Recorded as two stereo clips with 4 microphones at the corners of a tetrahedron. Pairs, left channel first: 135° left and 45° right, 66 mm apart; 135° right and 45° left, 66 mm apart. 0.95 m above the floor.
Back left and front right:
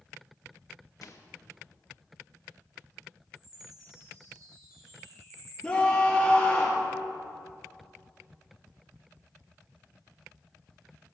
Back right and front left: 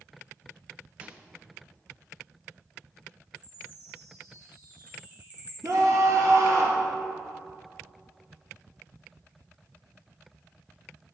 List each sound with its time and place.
1.0 s a microwave: 110° left, 1.2 m
3.4 s a chime: 25° right, 5 m
5.6 s a scream: 60° left, 1.7 m